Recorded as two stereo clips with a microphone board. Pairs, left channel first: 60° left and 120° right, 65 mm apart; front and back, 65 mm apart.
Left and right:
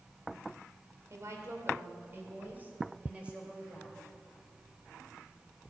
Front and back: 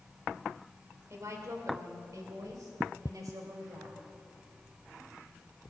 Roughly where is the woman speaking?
Behind right.